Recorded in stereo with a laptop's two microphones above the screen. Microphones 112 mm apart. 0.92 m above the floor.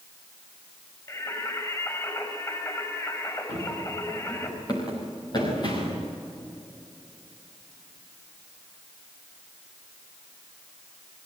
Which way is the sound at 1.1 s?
30° left (ahead or behind).